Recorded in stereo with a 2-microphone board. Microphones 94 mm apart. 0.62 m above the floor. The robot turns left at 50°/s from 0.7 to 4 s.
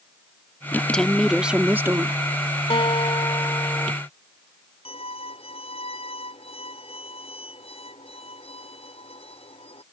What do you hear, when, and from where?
0.7 s a woman speaking: 25° left; by 2.2 s 50° right
2.7 s a guitar: 85° left; by 3.9 s 25° left
4.8 s a violin: 75° left (ahead or behind)